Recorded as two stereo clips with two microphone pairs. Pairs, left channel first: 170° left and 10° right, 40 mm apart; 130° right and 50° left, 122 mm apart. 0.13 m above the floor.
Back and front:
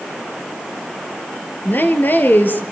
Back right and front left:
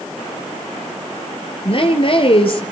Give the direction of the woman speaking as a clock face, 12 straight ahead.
6 o'clock.